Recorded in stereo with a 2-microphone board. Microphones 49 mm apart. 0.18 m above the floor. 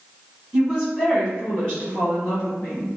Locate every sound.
0.5 s a woman speaking: centre (ahead or behind), 1.5 m; by 2.9 s 30° left (ahead or behind), 1.7 m